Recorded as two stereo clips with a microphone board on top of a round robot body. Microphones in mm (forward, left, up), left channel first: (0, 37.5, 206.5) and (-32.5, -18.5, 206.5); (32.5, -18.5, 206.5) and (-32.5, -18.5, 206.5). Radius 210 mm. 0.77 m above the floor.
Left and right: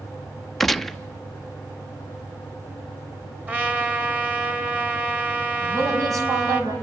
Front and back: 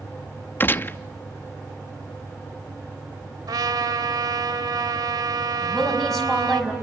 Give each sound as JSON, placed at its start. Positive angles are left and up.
{"t": 0.6, "sound": "a gunshot", "azimuth_deg": -25, "distance_m": 0.9}
{"t": 3.5, "sound": "a trumpet", "azimuth_deg": 175, "distance_m": 3.0}
{"t": 5.6, "sound": "a woman speaking", "azimuth_deg": -90, "distance_m": 6.0}